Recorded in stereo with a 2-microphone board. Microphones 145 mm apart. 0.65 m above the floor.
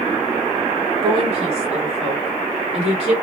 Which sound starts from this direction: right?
A woman speaking, at 1.0 s.